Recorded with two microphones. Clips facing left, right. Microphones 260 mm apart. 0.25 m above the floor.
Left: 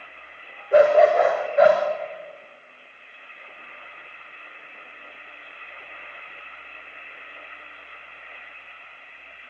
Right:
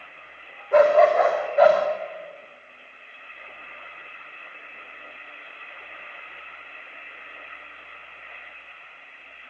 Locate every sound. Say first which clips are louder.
0.7 s a dog barking: left 1 dB; 10° left (ahead or behind), 6 m; by 1.8 s 15° left (ahead or behind), 7 m